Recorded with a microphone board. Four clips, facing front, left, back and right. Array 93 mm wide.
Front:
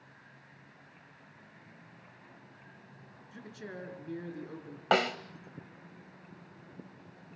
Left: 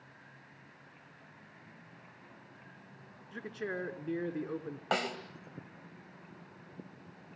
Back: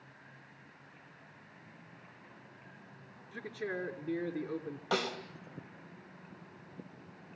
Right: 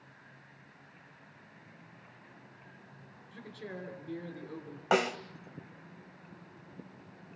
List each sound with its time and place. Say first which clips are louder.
3.3 s a man speaking: left 6 dB, back 6 dB; 120° left, 4 m
4.9 s a snare drum: right 5 dB, front 7 dB; 20° right, 1.8 m